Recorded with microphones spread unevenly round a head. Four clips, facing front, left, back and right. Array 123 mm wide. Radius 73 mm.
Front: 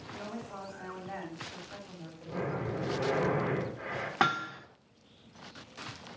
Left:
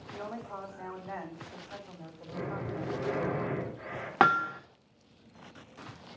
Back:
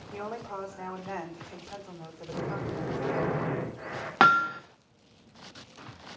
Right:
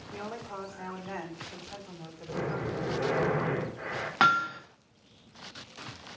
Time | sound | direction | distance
0.1 | a woman speaking | 150° right | 4 m
2.3 | breathing | 70° right | 4 m
4.2 | hammering | 140° left | 1.2 m